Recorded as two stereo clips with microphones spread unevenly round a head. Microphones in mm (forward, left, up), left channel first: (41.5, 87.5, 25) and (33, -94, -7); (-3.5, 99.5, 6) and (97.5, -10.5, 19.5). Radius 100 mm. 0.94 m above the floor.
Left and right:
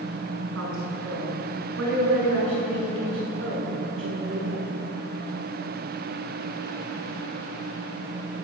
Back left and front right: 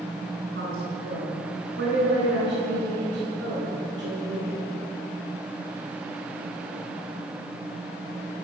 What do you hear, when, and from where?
0.5 s a woman speaking: 95° right, 9.5 m; by 4.6 s 80° right, 12 m